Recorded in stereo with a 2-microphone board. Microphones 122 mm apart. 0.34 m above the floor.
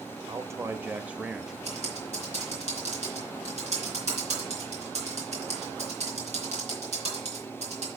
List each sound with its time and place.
0.3 s a man speaking: 30° right (ahead or behind), 0.9 m; by 1.6 s 5° right (ahead or behind), 1.1 m
1.6 s typing on a keyboard: 70° right (ahead or behind), 3.5 m